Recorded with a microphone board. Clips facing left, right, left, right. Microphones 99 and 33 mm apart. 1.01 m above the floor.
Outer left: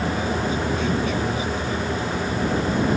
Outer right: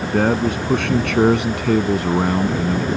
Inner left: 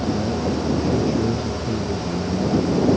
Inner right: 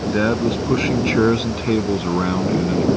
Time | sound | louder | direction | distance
0.1 | a man speaking | outer right 6 dB, inner right 4 dB | 70° right (ahead or behind) | ?